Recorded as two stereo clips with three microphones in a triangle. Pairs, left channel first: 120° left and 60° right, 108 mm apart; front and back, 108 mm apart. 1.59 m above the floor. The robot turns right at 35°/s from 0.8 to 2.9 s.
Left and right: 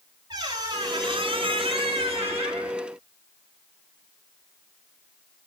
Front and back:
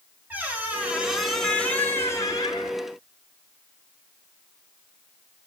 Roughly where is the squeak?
Right.